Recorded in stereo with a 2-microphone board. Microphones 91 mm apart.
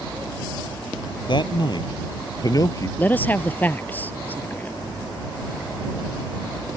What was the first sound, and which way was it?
A man speaking, 60° left (ahead or behind).